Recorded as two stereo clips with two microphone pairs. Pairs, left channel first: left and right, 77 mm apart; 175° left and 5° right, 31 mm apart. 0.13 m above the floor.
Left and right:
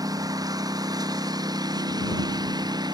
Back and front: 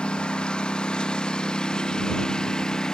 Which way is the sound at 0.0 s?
125° right.